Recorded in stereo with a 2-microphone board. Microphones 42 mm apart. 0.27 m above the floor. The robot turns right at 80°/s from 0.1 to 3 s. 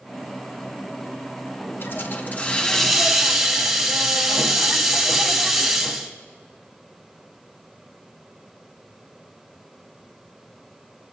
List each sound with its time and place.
1.8 s a hiss: 85° left, 2 m; by 6.1 s straight behind, 2 m